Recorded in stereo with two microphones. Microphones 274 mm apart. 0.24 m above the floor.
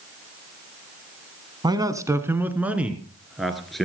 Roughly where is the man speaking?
Centre.